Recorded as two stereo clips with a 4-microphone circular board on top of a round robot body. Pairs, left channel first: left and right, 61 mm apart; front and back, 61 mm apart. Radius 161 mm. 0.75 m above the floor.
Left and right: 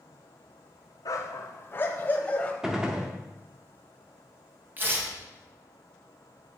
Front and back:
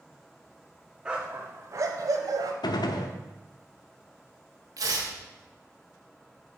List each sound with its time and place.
1.1 s a dog barking: 105° left, 0.6 m; by 2.5 s 160° left, 1.1 m
2.6 s a gunshot: 10° right, 0.6 m
4.8 s tearing paper: 150° right, 2.5 m